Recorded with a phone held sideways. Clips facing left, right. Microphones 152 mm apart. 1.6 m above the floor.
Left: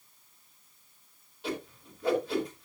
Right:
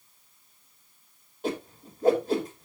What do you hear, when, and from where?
1.4 s a whoosh: 45° right (ahead or behind), 3.5 m